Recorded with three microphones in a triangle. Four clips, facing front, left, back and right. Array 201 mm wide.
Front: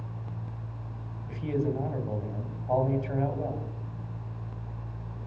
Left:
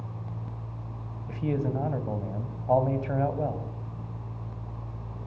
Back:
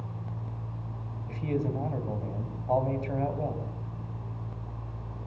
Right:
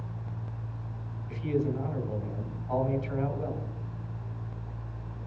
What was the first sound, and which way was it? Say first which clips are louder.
A man speaking: even, front 1 dB; 95° left.